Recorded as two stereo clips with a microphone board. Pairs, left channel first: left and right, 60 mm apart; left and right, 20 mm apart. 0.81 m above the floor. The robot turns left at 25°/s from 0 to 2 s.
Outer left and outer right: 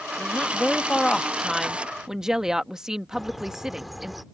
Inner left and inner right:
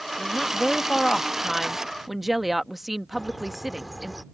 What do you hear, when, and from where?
0.2 s a woman speaking: 35° left; by 4.1 s 10° right
3.1 s a bird: centre (ahead or behind)